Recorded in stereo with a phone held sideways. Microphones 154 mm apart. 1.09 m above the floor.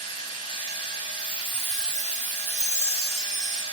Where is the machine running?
35° left (ahead or behind), 3 m.